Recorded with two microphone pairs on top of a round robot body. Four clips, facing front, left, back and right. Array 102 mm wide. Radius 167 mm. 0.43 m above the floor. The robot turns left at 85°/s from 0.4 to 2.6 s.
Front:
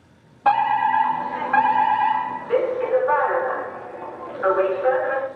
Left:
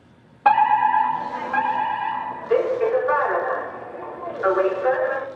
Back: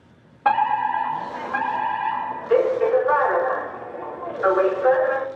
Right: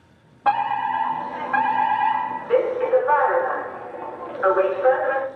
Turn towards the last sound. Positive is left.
turn(degrees=-85)